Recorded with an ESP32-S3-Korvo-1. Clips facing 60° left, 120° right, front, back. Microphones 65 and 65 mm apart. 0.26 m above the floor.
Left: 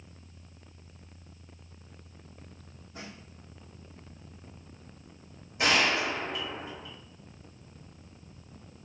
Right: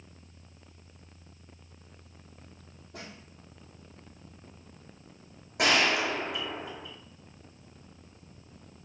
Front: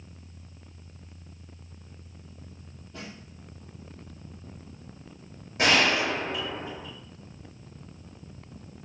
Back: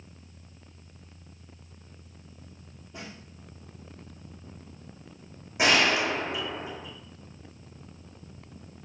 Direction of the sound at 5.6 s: 105° right.